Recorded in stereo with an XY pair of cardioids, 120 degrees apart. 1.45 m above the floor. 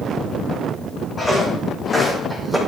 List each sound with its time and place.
1.2 s footsteps: 10° left, 5 m; by 2.6 s straight ahead, 3.5 m